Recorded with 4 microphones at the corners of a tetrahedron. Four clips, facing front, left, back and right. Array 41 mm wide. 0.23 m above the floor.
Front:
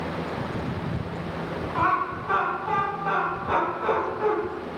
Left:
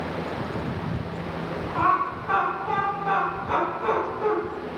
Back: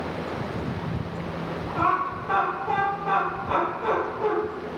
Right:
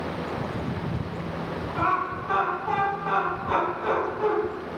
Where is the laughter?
45° left, 2.0 m; by 4.3 s 50° right, 1.3 m.